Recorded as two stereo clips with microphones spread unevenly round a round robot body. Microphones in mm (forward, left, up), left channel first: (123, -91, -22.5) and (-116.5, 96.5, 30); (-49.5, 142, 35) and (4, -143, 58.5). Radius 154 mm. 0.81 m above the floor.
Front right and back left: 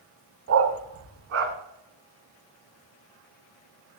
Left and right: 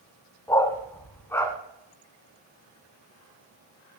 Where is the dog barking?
175° right, 1.4 m.